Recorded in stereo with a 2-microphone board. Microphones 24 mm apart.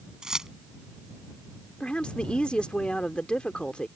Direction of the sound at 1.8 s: 50° left (ahead or behind).